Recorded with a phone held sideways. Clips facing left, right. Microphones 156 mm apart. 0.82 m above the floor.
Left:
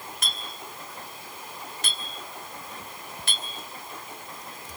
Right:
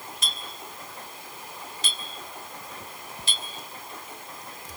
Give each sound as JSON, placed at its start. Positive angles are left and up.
{"t": 0.2, "sound": "a clink", "side_deg": 60, "distance_m": 2.0}